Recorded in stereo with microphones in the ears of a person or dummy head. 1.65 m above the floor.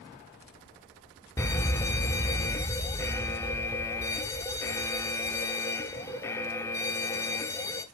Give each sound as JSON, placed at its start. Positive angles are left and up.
{"t": 1.4, "sound": "an alarm", "side_deg": 15, "distance_m": 0.7}